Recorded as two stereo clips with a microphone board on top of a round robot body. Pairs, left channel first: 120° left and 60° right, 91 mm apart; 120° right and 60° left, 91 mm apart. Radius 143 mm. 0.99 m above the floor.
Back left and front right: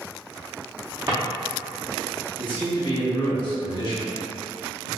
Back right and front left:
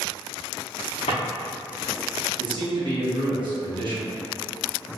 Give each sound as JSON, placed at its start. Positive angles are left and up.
{"t": 1.1, "sound": "a drawer", "azimuth_deg": -115, "distance_m": 0.6}
{"t": 2.4, "sound": "a man speaking", "azimuth_deg": 90, "distance_m": 1.3}